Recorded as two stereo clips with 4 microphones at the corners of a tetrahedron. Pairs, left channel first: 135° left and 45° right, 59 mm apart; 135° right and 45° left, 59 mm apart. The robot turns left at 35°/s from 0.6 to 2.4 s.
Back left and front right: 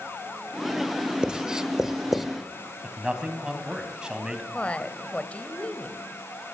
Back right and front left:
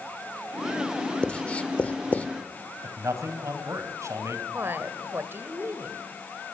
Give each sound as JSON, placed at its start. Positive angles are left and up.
{"t": 1.2, "sound": "writing", "azimuth_deg": -95, "distance_m": 1.0}
{"t": 2.8, "sound": "a man speaking", "azimuth_deg": 30, "distance_m": 2.5}
{"t": 4.5, "sound": "a woman speaking", "azimuth_deg": 75, "distance_m": 1.6}